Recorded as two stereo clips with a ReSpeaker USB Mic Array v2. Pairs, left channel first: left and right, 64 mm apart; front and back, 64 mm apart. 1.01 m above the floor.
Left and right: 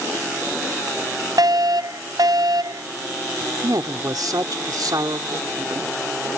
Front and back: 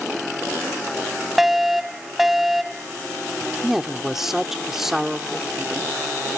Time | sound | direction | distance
1.4 | a fire alarm | 95° right | ?
3.6 | a woman speaking | 95° right | ?